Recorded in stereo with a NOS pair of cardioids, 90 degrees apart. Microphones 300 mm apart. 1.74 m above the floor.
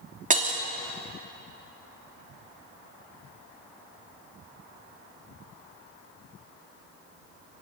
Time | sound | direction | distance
0.3 | breaking glass | 25° right | 2.5 m